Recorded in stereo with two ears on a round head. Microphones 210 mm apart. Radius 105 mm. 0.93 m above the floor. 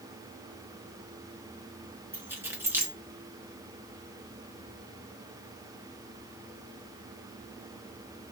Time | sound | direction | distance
2.1 | keys jangling | 10° right (ahead or behind) | 0.7 m